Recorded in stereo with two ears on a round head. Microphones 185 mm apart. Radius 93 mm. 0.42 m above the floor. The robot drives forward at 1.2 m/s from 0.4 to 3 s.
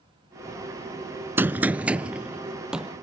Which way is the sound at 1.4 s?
10° right (ahead or behind).